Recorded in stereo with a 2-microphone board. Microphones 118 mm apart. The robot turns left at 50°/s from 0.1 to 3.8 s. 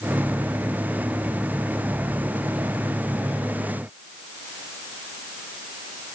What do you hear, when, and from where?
Only background noise.